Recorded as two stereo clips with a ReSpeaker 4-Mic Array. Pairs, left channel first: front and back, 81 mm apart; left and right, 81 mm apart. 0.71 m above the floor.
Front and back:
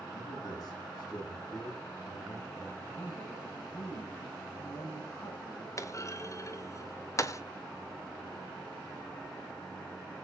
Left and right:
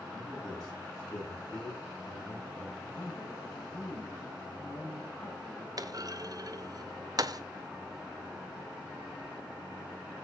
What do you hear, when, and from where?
0.1 s a man speaking: 45° left, 9.5 m; by 2.7 s 40° left, 10.5 m
2.8 s a man speaking: 45° left, 7 m
5.8 s a clunk: 50° right, 0.9 m